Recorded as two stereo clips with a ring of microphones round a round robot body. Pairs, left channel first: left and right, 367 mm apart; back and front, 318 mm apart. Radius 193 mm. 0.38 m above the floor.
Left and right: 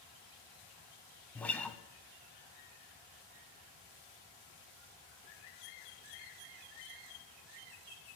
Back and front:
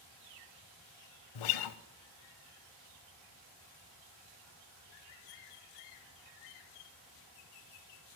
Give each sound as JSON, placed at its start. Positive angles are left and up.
{"t": 1.4, "sound": "a guitar", "azimuth_deg": 175, "distance_m": 0.6}